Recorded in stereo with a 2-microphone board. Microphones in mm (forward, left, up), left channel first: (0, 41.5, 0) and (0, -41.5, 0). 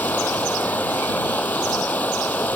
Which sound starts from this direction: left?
Running water, at 0.0 s.